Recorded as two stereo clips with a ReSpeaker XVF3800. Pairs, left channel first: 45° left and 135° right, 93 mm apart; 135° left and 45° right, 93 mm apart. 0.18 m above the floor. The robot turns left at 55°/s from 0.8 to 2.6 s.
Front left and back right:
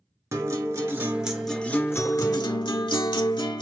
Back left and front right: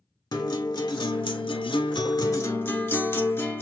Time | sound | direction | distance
0.3 | a guitar | 170° left | 1.0 m